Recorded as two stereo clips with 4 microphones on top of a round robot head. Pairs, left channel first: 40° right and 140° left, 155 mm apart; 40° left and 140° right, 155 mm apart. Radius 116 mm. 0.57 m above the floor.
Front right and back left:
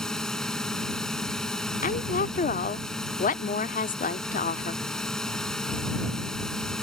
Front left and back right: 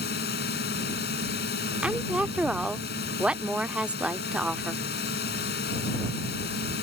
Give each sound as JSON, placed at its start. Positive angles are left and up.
{"t": 0.0, "sound": "a drone", "azimuth_deg": 50}
{"t": 1.8, "sound": "a woman speaking", "azimuth_deg": -60}